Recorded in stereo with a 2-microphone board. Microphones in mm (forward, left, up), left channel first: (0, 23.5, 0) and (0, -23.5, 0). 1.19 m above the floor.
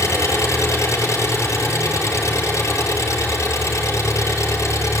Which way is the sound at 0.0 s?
85° left.